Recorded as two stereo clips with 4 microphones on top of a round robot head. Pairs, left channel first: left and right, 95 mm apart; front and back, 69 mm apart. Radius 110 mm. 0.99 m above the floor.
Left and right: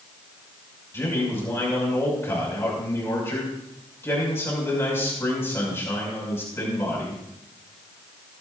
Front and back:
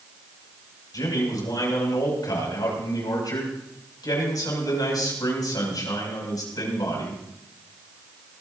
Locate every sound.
0.9 s a man speaking: 25° left, 6 m